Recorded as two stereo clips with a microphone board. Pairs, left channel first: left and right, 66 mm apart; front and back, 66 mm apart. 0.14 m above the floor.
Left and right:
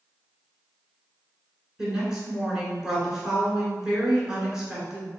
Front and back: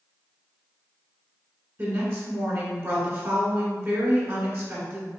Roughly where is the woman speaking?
Behind.